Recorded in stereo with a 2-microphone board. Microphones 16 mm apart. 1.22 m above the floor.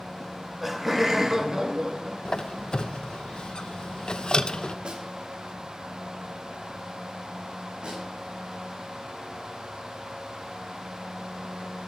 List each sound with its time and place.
0.2 s laughter: centre (ahead or behind), 2.5 m; by 2.7 s 60° right (ahead or behind), 3 m
2.2 s a squeak: 55° left (ahead or behind), 0.7 m
4.8 s a snare drum: 70° right (ahead or behind), 3 m
7.8 s a snare drum: 65° right (ahead or behind), 10 m